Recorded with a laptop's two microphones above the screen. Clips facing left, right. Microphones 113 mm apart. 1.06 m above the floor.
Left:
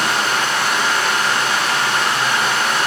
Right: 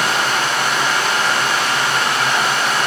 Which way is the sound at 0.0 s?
65° right (ahead or behind).